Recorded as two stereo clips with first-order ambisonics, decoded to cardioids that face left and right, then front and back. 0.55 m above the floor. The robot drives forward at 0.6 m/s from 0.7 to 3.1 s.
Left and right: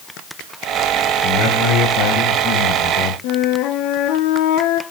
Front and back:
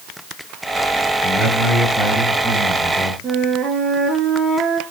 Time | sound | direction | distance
1.2 | a man speaking | 75° left | 4 m
3.2 | a flute | 110° left | 1.4 m